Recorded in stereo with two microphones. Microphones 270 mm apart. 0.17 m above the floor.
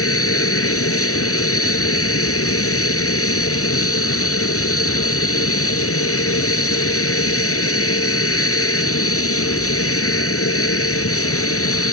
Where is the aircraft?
55° left (ahead or behind).